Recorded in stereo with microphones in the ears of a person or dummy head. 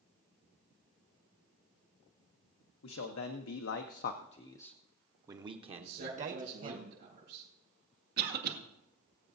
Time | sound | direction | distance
2.8 | a man speaking | 90° left | 1.0 m
5.8 | a man speaking | 60° right (ahead or behind) | 5.5 m
8.2 | a cough | 55° right (ahead or behind) | 1.7 m